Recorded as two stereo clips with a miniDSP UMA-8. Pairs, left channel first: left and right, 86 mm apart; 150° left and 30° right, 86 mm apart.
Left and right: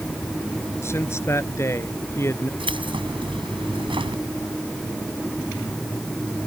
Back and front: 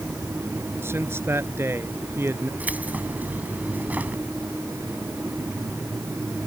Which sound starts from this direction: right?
Keys jangling, at 2.6 s.